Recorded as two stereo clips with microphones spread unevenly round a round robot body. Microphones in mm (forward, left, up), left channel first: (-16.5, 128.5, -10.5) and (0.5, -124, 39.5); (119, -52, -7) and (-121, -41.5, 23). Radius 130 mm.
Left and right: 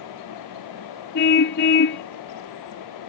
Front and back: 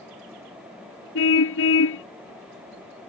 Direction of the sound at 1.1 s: 45° left.